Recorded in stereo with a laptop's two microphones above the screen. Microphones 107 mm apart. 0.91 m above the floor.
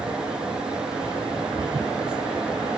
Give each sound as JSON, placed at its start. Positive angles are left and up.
{"t": 0.0, "sound": "a fan", "side_deg": -5, "distance_m": 5.0}